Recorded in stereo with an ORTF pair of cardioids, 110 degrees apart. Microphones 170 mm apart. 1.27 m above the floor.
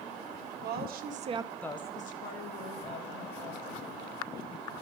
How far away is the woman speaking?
About 1.2 m.